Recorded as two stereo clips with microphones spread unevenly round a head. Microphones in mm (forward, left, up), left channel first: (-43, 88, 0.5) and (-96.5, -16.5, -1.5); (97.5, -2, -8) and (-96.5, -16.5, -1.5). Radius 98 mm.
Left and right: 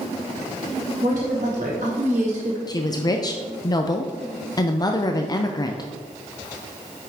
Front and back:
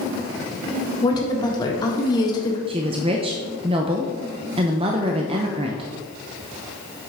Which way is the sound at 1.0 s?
65° right.